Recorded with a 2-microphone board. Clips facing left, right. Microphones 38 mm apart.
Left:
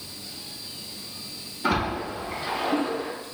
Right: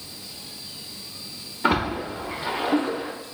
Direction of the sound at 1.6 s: 30° right (ahead or behind).